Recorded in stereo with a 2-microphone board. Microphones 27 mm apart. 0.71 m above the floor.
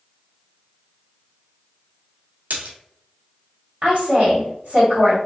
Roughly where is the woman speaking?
Right.